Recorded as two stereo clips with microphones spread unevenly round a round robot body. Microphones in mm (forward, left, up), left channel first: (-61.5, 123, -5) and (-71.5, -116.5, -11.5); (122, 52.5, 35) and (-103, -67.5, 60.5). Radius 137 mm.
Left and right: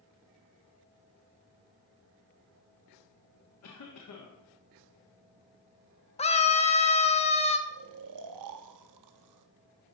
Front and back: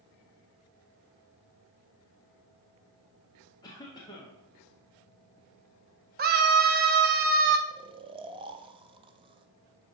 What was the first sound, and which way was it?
A cough, 100° left.